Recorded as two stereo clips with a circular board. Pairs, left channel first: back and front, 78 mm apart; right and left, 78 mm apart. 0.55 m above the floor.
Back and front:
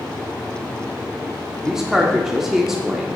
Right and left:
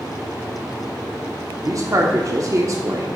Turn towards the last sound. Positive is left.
turn(degrees=85)